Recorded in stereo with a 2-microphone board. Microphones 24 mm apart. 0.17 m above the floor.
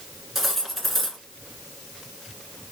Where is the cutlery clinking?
5° right (ahead or behind), 1.3 m.